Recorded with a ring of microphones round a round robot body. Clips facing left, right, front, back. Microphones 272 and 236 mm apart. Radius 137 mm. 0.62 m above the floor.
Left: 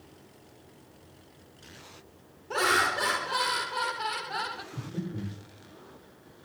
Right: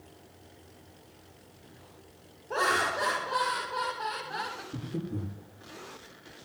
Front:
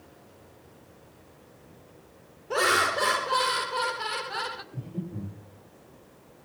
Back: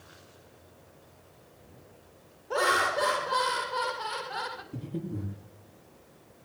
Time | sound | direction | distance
2.5 | laughter | 50° left | 3 m
4.7 | breathing | 140° right | 8 m